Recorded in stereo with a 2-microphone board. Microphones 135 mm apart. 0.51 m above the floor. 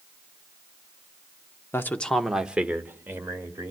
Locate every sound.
1.7 s a man speaking: 20° left (ahead or behind), 0.8 m; by 3.7 s 25° right (ahead or behind), 2.0 m